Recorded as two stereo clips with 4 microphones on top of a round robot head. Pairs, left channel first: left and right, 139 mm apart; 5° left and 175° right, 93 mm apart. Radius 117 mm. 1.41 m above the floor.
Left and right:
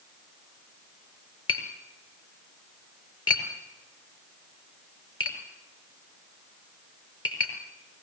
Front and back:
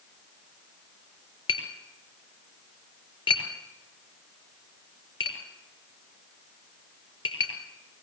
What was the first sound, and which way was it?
Tapping, 35° left.